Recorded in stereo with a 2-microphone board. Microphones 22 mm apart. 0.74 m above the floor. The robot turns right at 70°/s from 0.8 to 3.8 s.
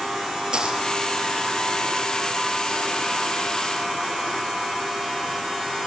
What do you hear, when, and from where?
0.5 s a dropped coin: 45° right (ahead or behind), 4.5 m